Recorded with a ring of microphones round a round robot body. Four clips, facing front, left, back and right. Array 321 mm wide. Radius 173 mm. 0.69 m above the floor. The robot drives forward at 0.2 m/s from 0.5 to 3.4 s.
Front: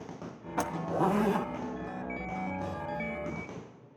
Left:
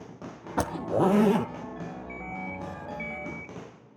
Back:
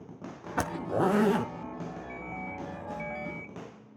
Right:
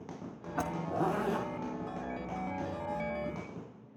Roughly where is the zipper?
Left.